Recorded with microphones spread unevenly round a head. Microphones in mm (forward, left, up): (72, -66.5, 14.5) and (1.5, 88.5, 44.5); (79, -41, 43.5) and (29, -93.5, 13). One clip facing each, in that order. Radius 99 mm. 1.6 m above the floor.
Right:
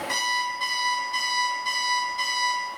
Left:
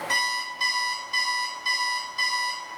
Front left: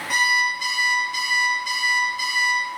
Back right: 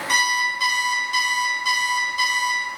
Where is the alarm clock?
160° right, 1.5 m.